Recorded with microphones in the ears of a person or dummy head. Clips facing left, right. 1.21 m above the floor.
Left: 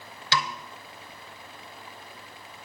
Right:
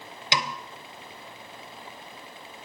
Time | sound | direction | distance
0.3 | a snare drum | 15° right (ahead or behind) | 0.6 m